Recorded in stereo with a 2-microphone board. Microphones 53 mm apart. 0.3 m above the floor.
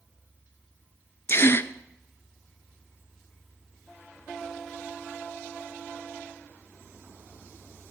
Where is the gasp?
50° left (ahead or behind), 0.5 m.